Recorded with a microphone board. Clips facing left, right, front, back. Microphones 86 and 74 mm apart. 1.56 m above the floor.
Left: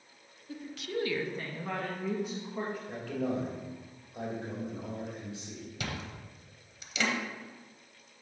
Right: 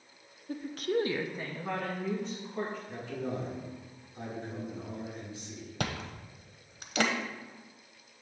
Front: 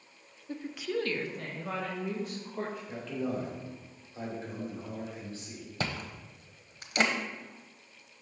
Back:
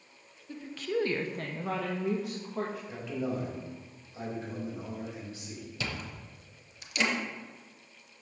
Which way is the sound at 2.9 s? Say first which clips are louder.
Left 3 dB, even; 105° left.